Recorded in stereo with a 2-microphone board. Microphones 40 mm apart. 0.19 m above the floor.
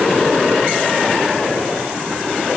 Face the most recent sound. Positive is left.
No sound to turn to.